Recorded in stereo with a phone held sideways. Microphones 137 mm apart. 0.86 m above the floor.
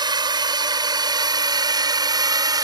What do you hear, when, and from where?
0.0 s a drone: 30° right (ahead or behind)